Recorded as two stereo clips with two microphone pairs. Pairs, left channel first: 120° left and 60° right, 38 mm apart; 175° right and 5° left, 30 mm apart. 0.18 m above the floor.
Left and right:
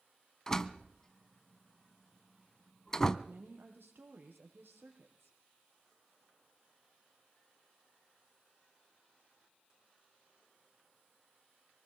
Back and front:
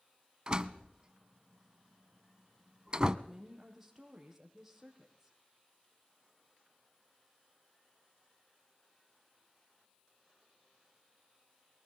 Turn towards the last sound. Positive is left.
turn(degrees=-75)